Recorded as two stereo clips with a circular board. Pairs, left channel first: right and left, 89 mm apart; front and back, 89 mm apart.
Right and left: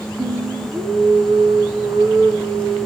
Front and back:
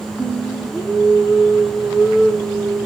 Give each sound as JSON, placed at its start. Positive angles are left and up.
{"t": 0.2, "sound": "singing", "azimuth_deg": 95, "distance_m": 5.5}